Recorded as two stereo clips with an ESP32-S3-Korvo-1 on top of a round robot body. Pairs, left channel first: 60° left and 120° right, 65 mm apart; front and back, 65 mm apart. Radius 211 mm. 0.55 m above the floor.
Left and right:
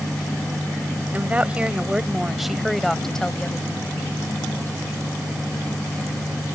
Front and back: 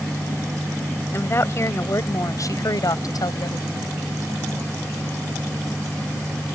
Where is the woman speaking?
50° right; by 3.9 s 10° right.